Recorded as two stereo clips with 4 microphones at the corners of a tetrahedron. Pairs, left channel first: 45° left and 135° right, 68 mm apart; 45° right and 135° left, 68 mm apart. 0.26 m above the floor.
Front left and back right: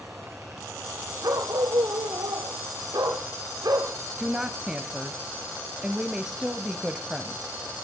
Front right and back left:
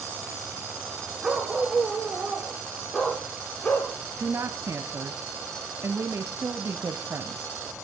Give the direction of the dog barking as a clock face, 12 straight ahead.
5 o'clock.